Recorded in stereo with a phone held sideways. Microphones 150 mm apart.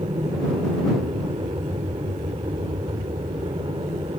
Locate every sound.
0.0 s an aircraft: 35° right (ahead or behind)